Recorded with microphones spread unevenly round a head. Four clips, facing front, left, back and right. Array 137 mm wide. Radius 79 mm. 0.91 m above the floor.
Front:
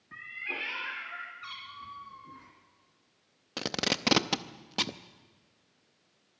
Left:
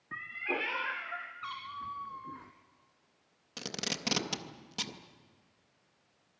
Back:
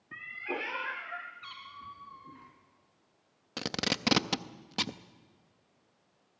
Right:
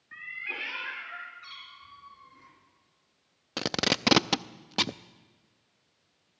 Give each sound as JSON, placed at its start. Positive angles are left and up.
{"t": 0.1, "sound": "a cat meowing", "azimuth_deg": 115, "distance_m": 0.7}
{"t": 1.4, "sound": "a cat meowing", "azimuth_deg": 95, "distance_m": 1.9}
{"t": 3.6, "sound": "tape being pulled", "azimuth_deg": -70, "distance_m": 0.7}